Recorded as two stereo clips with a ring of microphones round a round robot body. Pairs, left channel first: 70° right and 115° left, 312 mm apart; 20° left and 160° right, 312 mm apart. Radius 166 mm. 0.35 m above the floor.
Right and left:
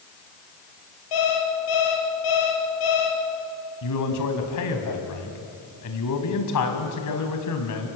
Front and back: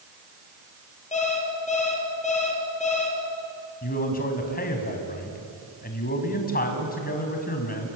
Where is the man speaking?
40° right, 4 m.